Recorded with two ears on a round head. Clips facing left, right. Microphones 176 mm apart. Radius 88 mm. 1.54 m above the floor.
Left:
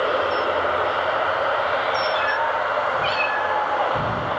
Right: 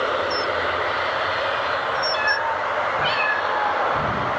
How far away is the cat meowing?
About 1.1 m.